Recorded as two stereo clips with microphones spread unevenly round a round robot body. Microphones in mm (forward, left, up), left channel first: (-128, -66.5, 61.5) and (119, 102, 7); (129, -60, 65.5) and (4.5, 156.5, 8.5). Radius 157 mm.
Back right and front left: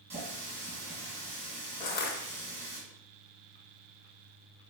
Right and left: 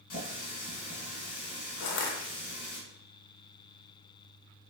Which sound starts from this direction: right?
Crushing, at 1.8 s.